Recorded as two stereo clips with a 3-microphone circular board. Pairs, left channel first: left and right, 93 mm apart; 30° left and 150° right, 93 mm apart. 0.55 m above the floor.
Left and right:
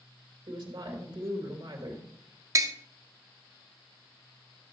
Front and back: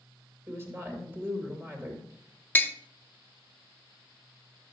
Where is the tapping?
40° right, 0.5 m.